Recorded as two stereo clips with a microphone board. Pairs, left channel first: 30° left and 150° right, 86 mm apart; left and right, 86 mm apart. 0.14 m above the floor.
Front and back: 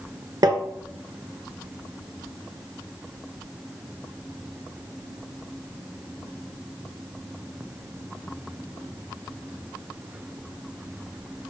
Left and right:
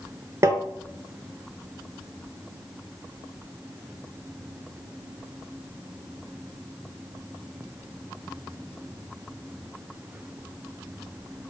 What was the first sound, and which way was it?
Tapping, 130° right.